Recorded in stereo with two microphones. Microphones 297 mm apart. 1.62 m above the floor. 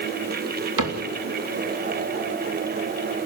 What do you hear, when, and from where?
0.8 s a cupboard door: 90° right, 3.5 m